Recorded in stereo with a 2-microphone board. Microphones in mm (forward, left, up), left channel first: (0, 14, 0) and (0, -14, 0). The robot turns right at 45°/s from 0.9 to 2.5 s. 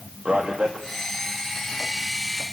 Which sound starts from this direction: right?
A man speaking, at 0.2 s.